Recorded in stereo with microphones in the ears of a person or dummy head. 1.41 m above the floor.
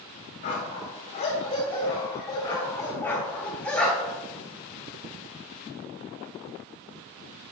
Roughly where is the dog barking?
Left.